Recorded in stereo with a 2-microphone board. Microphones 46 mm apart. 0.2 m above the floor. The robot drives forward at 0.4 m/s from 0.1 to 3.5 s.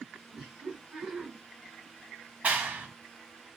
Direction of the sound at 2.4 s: 30° right (ahead or behind).